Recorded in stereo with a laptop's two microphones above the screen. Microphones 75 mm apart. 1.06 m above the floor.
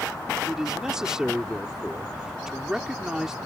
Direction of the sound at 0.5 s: 10° right (ahead or behind).